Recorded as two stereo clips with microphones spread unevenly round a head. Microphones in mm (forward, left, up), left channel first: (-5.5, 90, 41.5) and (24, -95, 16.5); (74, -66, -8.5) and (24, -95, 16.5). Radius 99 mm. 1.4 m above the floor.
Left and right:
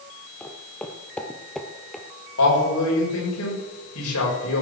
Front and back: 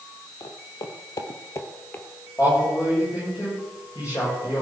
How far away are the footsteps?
About 1.9 m.